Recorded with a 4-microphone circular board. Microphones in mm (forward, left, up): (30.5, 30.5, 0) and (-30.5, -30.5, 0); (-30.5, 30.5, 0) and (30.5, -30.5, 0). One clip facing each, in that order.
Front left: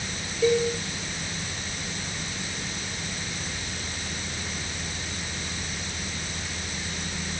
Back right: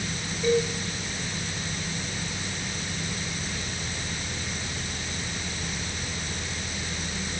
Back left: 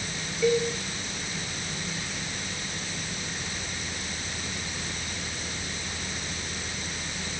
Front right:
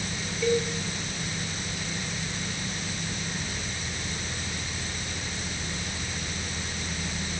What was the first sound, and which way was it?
A cowbell, 50° left.